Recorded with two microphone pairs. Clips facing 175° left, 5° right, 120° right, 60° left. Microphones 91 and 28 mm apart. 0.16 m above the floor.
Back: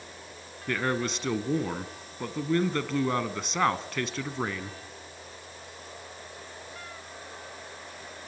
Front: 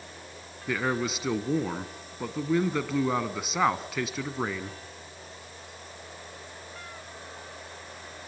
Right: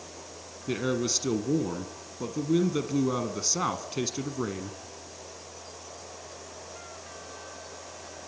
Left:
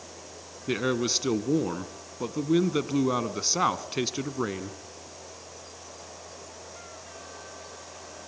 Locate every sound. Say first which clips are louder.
0.7 s a man speaking: even, left 2 dB; 70° left, 1.1 m